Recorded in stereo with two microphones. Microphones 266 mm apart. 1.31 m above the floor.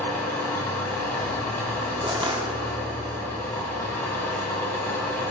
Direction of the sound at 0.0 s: 5° left (ahead or behind).